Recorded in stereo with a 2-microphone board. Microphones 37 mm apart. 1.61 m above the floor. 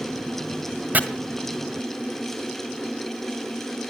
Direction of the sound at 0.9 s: 45° right (ahead or behind).